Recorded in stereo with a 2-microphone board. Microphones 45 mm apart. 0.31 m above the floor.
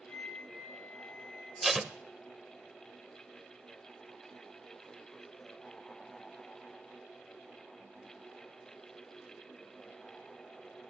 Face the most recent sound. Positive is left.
turn(degrees=0)  # may be behind; listen again after turning